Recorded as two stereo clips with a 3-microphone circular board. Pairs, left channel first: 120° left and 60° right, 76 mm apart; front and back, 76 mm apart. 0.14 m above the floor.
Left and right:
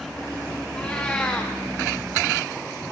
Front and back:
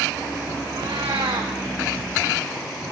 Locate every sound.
0.7 s a cat meowing: 170° right, 2.0 m